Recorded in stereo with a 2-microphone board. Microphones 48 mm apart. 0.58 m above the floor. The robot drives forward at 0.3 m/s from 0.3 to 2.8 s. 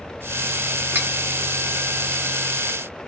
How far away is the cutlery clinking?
About 1.4 m.